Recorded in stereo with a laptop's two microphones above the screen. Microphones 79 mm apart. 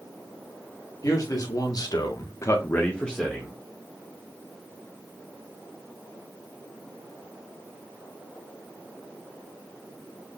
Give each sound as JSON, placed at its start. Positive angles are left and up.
{"t": 1.0, "sound": "a man speaking", "side_deg": 45, "distance_m": 1.9}